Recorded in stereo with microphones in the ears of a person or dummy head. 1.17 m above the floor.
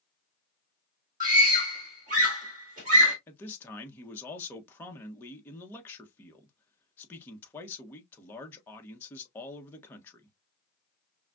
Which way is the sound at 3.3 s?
15° left (ahead or behind).